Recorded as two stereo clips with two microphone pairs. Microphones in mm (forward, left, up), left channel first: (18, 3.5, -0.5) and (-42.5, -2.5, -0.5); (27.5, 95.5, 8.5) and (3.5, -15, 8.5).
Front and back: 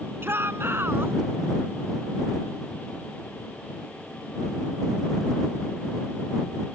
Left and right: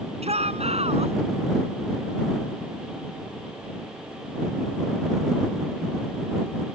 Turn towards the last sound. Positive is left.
turn(degrees=-125)